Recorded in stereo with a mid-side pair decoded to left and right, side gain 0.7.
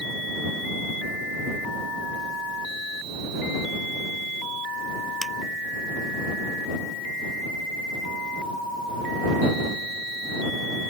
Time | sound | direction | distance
5.2 | tapping | straight ahead | ?